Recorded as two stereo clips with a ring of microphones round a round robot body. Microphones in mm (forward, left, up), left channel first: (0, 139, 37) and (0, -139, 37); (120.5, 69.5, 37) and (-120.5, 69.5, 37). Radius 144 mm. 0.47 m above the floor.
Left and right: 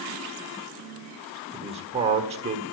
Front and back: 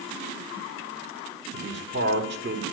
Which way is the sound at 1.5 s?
150° right.